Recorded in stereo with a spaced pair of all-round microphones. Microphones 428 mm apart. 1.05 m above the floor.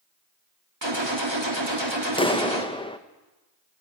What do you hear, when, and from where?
0.8 s a gunshot: 75° right (ahead or behind), 3 m
2.2 s a clap: 10° left (ahead or behind), 0.8 m